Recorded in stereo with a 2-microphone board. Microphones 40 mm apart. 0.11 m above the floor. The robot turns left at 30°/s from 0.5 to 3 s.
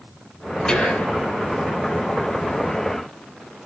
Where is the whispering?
20° left (ahead or behind), 3.5 m; by 1.1 s 35° left (ahead or behind), 3.5 m.